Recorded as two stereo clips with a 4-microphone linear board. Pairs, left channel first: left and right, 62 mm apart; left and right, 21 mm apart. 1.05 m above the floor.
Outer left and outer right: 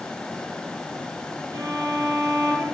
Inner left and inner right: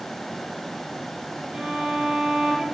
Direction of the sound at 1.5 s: 60° right (ahead or behind).